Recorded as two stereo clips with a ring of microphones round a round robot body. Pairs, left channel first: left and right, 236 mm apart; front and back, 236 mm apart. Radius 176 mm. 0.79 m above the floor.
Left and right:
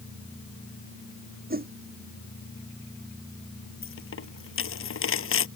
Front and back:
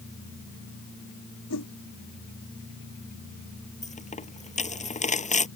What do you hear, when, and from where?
1.5 s a whoosh: 40° right
3.8 s a dropped coin: 60° left